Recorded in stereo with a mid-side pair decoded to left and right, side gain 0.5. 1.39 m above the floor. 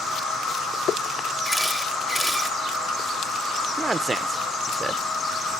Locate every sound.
0.0 s an insect: 55° left, 3.5 m
1.4 s a camera shutter: 15° left, 2 m
3.8 s a man speaking: 20° right, 1.0 m